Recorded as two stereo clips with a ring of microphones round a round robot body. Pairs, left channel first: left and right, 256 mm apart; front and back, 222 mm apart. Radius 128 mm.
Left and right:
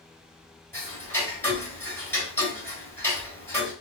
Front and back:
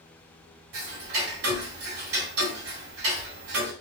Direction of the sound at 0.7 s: 170° left.